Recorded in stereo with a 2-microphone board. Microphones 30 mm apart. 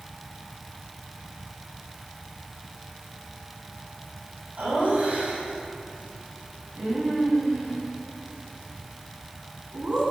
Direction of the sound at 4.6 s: 60° right (ahead or behind).